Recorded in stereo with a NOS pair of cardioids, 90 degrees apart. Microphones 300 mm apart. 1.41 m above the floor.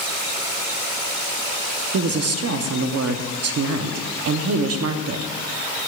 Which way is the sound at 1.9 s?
55° right.